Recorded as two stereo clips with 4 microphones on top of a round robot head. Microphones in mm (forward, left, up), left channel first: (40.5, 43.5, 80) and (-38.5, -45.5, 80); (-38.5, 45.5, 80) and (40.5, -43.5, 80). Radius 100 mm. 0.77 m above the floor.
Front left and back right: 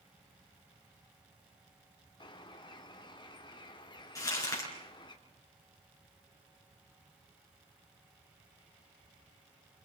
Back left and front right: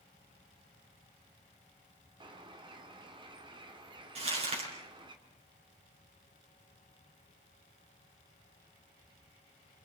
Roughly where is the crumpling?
Ahead.